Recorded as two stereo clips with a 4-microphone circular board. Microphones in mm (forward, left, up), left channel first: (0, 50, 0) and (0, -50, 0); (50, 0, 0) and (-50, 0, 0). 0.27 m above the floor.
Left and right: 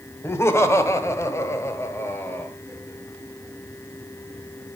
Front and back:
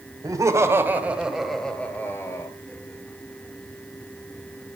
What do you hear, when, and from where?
0.2 s laughter: 145° left, 1.8 m; by 2.5 s 35° left, 1.6 m